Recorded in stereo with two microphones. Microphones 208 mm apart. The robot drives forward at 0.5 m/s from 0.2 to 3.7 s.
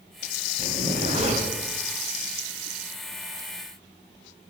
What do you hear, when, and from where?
0.6 s a zipper: 35° right (ahead or behind), 2.5 m; by 1.5 s 30° right (ahead or behind), 2.5 m